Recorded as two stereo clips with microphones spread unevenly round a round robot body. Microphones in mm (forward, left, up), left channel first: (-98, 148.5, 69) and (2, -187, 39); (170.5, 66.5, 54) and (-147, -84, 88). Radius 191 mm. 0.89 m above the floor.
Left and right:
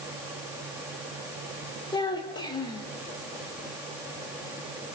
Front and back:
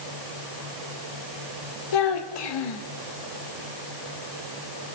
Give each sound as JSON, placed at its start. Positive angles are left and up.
{"t": 1.9, "sound": "a child speaking", "azimuth_deg": 25, "distance_m": 3.0}